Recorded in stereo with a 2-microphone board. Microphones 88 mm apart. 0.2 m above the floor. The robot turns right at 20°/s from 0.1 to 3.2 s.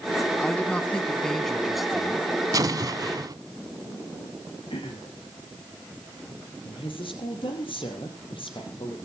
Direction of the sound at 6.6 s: 75° left (ahead or behind).